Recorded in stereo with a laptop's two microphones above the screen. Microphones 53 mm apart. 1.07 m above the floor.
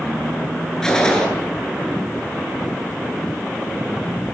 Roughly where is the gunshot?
Centre.